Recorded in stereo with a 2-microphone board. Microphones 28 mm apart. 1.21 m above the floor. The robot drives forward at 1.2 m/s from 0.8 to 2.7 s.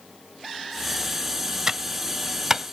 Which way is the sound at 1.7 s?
20° right (ahead or behind).